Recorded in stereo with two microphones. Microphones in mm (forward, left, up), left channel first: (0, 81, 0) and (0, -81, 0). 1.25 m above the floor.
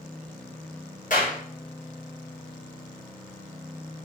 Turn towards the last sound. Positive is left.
turn(degrees=55)  # may be behind; listen again after turning